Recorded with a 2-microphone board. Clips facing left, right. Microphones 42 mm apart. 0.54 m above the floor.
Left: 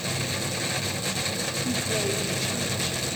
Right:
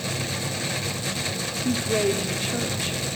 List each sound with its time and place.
1.6 s a woman speaking: 30° right (ahead or behind), 0.9 m